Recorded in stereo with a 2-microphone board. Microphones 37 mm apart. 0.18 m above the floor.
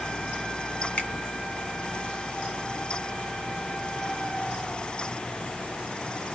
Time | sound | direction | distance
1.0 | a finger snap | 35° left (ahead or behind) | 1.6 m